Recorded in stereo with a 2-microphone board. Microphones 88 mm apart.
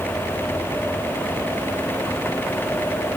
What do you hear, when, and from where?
Only background noise.